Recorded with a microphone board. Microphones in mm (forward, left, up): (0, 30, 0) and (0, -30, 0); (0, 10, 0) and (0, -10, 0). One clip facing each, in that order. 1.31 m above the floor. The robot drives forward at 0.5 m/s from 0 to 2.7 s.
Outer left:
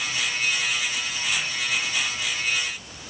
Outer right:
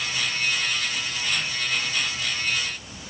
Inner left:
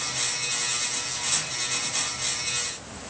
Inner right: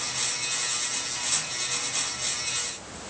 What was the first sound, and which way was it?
Only background noise.